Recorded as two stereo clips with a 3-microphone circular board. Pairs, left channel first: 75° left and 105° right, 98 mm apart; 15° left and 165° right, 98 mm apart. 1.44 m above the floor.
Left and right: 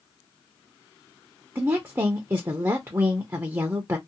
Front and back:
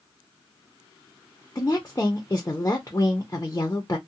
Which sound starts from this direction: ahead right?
A woman speaking, at 1.6 s.